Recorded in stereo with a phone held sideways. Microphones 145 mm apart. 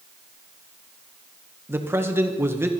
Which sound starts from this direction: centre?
A man speaking, at 1.7 s.